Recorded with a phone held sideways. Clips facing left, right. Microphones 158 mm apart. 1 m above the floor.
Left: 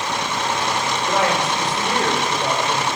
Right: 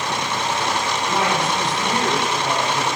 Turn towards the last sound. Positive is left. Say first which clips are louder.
# left 2 dB
turn(degrees=70)  # may be behind; listen again after turning